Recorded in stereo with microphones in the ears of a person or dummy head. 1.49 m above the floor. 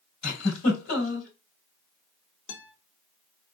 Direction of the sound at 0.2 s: 50° left (ahead or behind).